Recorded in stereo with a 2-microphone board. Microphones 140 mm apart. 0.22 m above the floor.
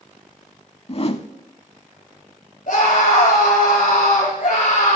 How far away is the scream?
About 5 m.